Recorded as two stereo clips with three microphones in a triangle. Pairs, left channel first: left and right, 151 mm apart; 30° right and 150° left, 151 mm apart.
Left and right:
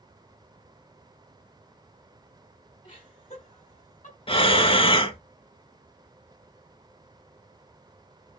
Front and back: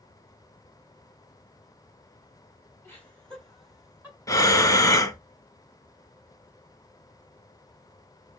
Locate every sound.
2.8 s laughter: 40° left, 2.5 m; by 4.2 s 70° left, 3 m
4.3 s breathing: 35° left, 0.6 m